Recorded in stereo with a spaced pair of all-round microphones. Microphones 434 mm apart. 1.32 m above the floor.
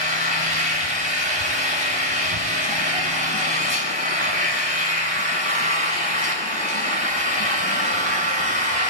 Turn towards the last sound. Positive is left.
turn(degrees=80)